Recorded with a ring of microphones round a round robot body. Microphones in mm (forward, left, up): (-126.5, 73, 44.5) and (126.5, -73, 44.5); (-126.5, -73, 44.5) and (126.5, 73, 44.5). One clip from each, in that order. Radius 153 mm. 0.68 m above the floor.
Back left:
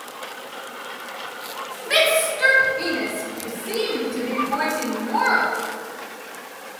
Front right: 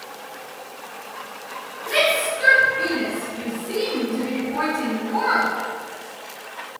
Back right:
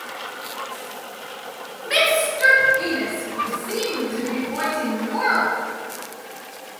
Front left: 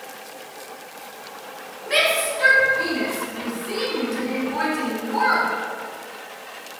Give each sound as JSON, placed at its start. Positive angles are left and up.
{"t": 1.9, "sound": "a shout", "azimuth_deg": 135, "distance_m": 2.0}